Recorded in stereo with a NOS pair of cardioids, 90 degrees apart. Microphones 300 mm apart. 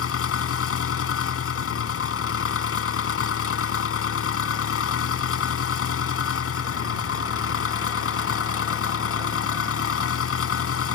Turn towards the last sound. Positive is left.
turn(degrees=50)